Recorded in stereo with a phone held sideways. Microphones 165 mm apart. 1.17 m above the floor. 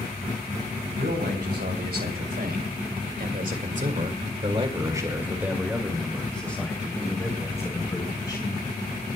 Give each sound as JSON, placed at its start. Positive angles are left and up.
{"t": 1.0, "sound": "a man speaking", "side_deg": -85, "distance_m": 4.0}